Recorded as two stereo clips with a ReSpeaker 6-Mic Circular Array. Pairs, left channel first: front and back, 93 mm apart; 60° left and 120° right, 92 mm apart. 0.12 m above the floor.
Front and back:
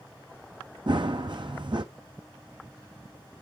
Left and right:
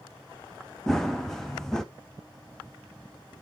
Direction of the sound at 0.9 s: 145° left.